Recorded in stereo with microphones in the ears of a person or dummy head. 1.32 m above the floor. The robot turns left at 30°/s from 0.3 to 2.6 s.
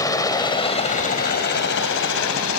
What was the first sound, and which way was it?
A helicopter, 15° left (ahead or behind).